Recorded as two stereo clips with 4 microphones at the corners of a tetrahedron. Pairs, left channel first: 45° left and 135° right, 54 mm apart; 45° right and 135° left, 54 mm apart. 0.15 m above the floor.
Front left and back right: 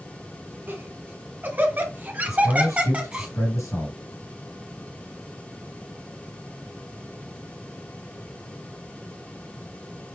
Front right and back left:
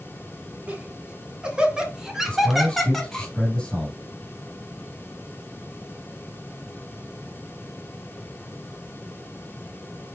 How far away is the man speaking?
About 4 m.